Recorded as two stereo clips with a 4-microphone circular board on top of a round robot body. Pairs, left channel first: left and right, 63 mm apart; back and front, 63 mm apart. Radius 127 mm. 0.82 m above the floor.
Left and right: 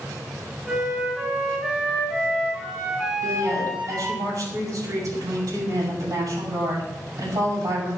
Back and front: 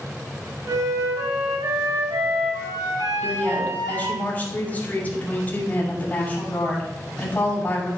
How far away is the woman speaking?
About 6.5 m.